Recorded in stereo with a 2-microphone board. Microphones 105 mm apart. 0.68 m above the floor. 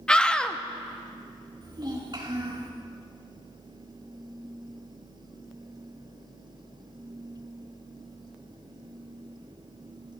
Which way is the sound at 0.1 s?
10° left (ahead or behind).